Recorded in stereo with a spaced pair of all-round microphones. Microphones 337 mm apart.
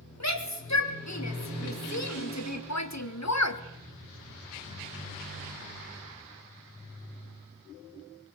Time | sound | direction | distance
0.2 | a shout | 55° left (ahead or behind) | 4 m